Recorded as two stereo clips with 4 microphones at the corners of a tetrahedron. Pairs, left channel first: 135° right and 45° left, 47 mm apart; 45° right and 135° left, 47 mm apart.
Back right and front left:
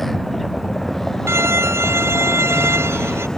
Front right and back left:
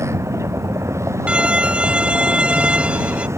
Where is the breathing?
No breathing in this recording.